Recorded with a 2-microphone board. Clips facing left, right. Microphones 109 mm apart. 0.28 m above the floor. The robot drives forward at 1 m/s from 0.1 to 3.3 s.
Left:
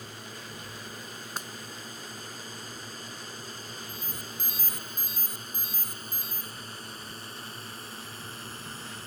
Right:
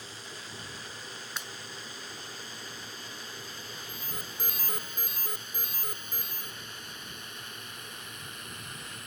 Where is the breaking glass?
45° left (ahead or behind).